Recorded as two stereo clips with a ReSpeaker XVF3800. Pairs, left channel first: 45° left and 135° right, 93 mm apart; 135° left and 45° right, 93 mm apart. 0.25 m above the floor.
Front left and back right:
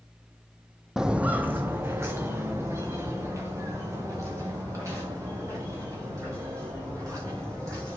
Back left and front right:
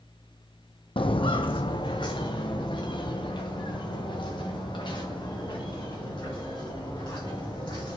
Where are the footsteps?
140° left, 0.6 m; by 8.0 s 170° left, 6.5 m.